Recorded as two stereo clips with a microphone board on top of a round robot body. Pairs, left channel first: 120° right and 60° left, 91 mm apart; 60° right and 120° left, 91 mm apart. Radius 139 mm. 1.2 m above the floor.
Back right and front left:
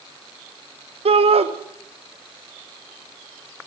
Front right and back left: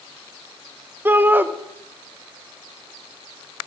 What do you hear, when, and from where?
1.1 s a shout: 50° left, 1.3 m